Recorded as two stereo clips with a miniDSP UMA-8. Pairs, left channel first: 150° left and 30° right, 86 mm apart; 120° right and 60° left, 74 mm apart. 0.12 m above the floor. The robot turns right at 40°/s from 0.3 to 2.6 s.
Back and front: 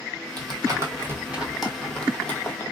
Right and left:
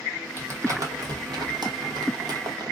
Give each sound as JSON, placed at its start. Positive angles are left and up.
{"t": 0.4, "sound": "crumpling", "azimuth_deg": 5, "distance_m": 0.9}